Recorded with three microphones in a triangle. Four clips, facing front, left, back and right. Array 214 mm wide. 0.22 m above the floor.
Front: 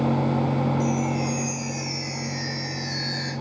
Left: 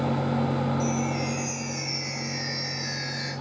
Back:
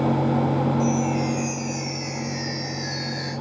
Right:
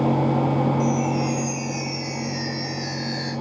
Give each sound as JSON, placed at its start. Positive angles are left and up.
{"t": 0.8, "sound": "a chime", "azimuth_deg": 55, "distance_m": 7.0}